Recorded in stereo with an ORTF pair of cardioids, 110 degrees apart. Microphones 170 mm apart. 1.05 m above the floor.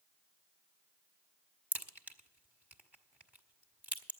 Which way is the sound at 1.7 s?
10° right.